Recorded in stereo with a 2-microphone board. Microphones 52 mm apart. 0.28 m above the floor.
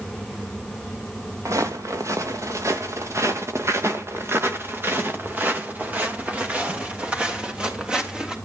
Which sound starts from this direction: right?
Footsteps, at 1.4 s.